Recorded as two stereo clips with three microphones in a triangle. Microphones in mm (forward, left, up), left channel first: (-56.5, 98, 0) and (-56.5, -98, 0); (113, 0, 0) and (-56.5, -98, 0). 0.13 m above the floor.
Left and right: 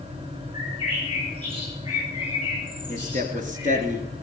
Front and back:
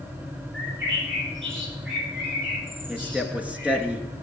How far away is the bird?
About 9.5 m.